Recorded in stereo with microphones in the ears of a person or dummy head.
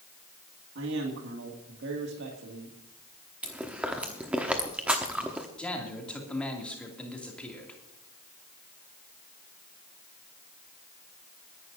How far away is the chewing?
About 1.0 m.